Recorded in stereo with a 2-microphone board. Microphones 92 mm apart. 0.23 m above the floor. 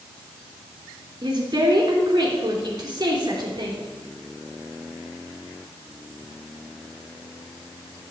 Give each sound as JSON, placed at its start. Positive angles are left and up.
{"t": 1.2, "sound": "a woman speaking", "side_deg": -45, "distance_m": 3.0}